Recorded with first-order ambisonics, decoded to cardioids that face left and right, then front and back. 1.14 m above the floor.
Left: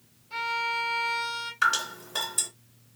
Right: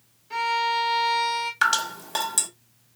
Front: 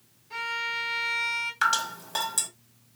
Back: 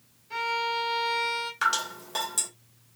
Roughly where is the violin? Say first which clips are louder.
Right 5 dB, back 2 dB; right.